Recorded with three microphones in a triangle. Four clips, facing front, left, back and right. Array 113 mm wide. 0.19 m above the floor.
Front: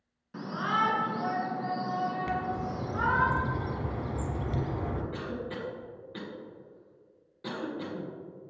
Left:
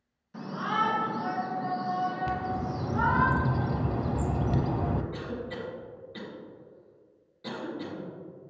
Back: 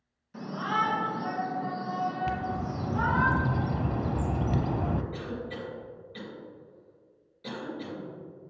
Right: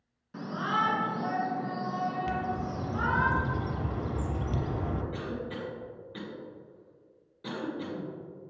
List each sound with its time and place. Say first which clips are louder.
0.3 s a shout: even, even; 30° right, 2.0 m; by 3.3 s 10° right, 4 m
2.3 s a bird: left 1 dB, even; 140° left, 0.7 m
5.1 s a cough: even, even; 20° right, 1.9 m